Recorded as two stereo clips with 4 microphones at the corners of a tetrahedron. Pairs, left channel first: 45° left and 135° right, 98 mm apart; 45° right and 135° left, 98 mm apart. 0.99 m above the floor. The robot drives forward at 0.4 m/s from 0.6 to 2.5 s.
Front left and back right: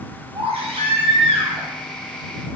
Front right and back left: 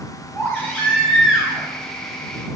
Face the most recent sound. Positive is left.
turn(degrees=-145)